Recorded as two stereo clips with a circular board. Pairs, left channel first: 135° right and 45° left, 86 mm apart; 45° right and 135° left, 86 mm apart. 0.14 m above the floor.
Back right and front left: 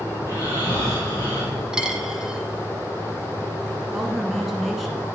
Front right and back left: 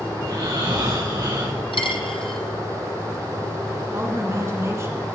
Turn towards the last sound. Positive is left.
turn(degrees=135)